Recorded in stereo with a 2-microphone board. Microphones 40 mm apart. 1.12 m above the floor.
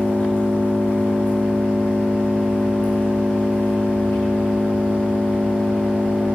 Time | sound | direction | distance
0.0 | an engine running | 65° left (ahead or behind) | 5 m